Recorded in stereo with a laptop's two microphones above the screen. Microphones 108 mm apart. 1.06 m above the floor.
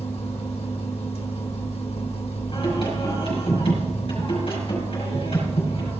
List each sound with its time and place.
0.0 s a machine running: 65° left (ahead or behind), 1.4 m
2.5 s singing: 60° left (ahead or behind), 5.5 m